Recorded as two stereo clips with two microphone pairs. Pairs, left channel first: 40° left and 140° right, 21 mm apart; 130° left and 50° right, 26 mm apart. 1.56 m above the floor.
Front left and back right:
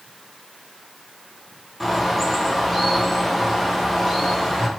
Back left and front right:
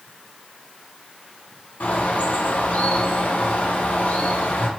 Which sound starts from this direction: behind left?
A bird, at 1.8 s.